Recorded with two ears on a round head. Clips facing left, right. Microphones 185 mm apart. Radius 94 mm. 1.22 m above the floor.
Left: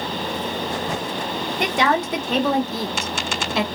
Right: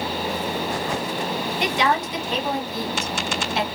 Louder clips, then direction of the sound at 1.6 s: Left 3 dB; 40° left (ahead or behind).